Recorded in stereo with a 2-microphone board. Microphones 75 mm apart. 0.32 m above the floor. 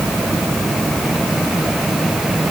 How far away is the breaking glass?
I don't hear breaking glass.